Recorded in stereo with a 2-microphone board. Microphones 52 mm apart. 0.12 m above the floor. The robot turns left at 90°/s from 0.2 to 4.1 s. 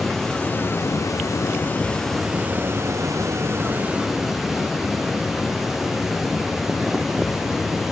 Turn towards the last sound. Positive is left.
turn(degrees=-170)